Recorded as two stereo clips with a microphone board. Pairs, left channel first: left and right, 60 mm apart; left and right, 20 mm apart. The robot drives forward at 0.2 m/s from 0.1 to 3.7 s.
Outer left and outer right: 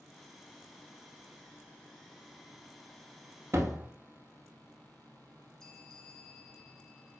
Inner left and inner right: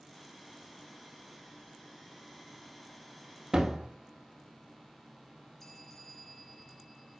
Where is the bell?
10° left (ahead or behind), 2.5 m.